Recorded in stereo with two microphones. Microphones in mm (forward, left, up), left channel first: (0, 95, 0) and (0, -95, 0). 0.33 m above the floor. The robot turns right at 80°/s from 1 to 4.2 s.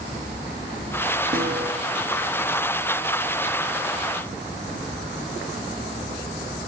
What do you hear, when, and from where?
1.3 s a snare drum: 45° right (ahead or behind), 6.5 m; by 1.7 s 70° right (ahead or behind), 6.5 m